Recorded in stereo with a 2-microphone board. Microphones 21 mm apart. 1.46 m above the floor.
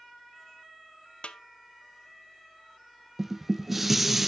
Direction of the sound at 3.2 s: 15° right (ahead or behind).